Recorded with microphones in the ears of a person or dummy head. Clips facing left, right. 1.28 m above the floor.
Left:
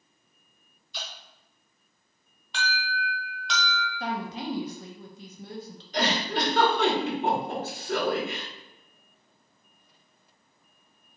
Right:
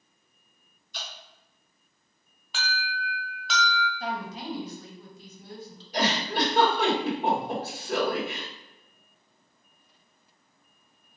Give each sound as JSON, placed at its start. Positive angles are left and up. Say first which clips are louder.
{"t": 0.9, "sound": "dripping", "louder": "left 1 dB", "side_deg": -40, "distance_m": 1.3}
{"t": 2.5, "sound": "an alarm", "louder": "left 2 dB", "side_deg": 0, "distance_m": 0.7}
{"t": 4.0, "sound": "a woman speaking", "louder": "left 2 dB", "side_deg": 45, "distance_m": 0.6}
{"t": 5.9, "sound": "a giggle", "louder": "even", "side_deg": -10, "distance_m": 1.9}